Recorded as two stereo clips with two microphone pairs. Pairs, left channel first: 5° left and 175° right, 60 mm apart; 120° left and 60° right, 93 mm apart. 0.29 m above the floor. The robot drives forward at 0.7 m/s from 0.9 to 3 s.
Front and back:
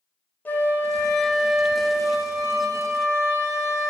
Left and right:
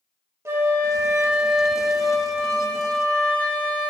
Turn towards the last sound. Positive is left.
turn(degrees=-170)